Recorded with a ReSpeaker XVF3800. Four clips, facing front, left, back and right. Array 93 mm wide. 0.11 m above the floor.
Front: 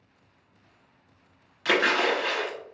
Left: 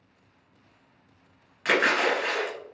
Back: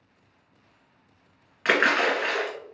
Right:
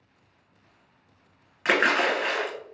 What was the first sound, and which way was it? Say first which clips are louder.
A splash: right 1 dB, back 2 dB; 160° right.